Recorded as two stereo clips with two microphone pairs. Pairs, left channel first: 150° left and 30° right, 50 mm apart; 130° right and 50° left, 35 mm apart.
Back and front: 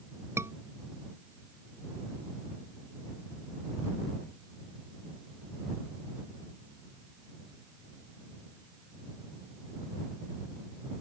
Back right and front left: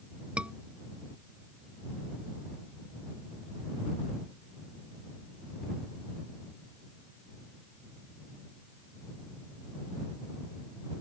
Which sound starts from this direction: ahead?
A scream, at 0.4 s.